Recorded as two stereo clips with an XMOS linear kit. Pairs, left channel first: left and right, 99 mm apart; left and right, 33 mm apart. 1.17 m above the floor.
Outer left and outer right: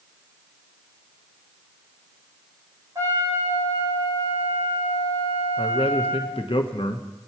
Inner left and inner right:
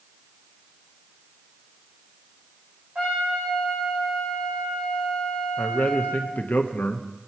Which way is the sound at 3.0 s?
35° right (ahead or behind).